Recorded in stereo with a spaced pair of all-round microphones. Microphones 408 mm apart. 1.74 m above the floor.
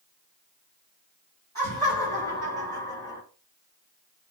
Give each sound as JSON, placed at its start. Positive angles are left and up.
{"t": 1.6, "sound": "laughter", "side_deg": 10, "distance_m": 1.8}